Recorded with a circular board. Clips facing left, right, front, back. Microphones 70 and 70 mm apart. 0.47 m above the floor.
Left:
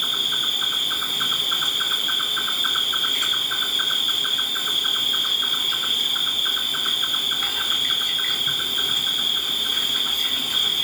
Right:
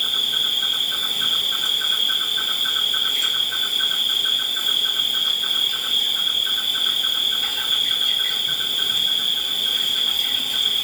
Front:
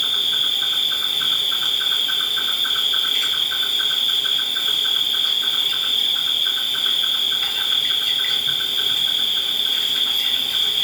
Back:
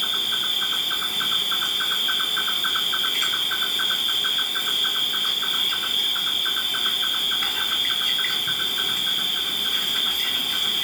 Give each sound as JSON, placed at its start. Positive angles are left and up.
{"t": 0.0, "sound": "an insect", "azimuth_deg": 120, "distance_m": 0.9}